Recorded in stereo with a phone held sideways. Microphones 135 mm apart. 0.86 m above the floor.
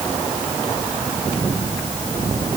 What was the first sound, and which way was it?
Only background noise.